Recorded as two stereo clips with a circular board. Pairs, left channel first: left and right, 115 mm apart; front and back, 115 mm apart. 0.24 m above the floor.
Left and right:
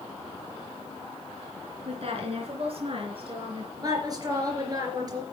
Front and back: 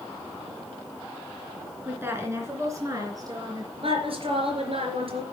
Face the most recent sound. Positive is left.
turn(degrees=-145)